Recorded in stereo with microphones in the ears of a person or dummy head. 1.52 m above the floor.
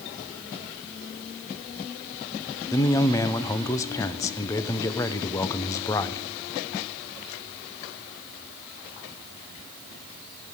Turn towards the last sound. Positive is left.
turn(degrees=20)  # may be behind; listen again after turning